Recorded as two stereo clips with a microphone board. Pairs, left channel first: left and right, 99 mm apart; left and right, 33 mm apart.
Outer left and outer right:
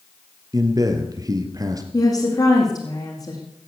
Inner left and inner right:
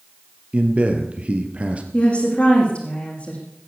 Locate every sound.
0.5 s a man speaking: 35° right (ahead or behind), 2.5 m
1.9 s a woman speaking: 40° left (ahead or behind), 4.5 m